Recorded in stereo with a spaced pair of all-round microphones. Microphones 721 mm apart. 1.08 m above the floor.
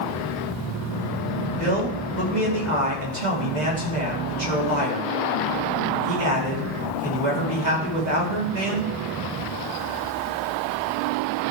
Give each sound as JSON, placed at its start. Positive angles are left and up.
{"t": 1.6, "sound": "a man speaking", "side_deg": -75, "distance_m": 2.5}